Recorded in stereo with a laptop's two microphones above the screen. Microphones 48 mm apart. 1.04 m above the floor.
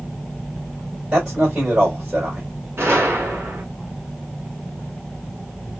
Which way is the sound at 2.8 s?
55° right (ahead or behind).